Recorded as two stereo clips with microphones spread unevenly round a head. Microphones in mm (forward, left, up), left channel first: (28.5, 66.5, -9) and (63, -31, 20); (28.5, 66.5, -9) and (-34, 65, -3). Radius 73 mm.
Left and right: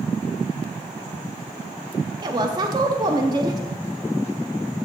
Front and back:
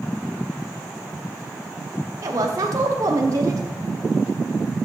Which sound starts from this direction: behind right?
A woman speaking, at 2.2 s.